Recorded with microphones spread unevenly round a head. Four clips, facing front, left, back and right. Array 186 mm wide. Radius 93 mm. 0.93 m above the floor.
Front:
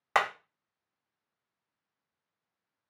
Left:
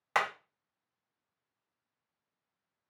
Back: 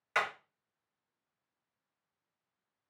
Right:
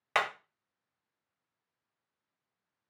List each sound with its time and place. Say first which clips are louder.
0.1 s hammering: even, front 6 dB; 15° right, 1.0 m